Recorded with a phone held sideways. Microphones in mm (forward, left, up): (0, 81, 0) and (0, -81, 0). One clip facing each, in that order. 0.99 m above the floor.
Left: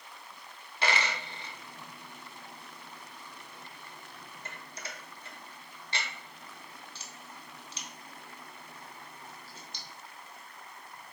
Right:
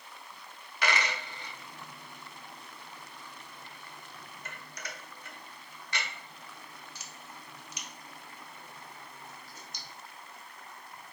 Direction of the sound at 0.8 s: 30° left (ahead or behind).